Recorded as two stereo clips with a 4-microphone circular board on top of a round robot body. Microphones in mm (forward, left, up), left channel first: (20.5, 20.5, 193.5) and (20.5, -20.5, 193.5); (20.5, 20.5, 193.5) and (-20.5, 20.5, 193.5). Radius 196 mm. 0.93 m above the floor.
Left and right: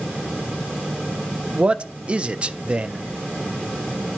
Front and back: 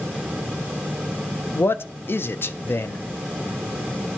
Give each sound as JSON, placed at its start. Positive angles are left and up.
{"t": 1.6, "sound": "a man speaking", "azimuth_deg": -25, "distance_m": 0.5}